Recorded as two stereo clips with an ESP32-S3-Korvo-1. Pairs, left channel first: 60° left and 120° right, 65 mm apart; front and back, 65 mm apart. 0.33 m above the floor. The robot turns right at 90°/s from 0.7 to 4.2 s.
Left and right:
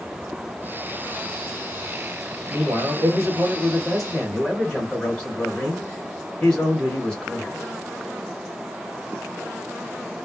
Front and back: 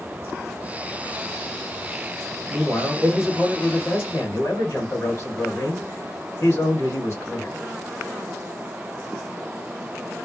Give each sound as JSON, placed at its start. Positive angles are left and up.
{"t": 2.5, "sound": "a man speaking", "azimuth_deg": -165, "distance_m": 1.8}